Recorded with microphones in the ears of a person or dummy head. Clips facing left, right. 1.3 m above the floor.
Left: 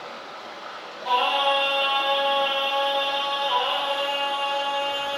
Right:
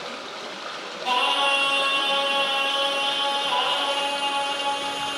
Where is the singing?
65° right (ahead or behind), 3 m.